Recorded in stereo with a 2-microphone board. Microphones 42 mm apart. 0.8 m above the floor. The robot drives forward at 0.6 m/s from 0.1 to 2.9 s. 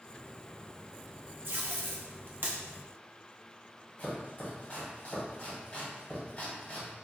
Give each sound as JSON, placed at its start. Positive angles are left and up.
{"t": 1.4, "sound": "tape being pulled", "side_deg": -60, "distance_m": 0.7}
{"t": 4.0, "sound": "chopping", "side_deg": 40, "distance_m": 1.6}